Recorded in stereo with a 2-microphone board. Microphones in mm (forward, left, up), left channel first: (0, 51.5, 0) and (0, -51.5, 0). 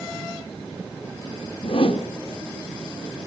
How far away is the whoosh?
About 2 m.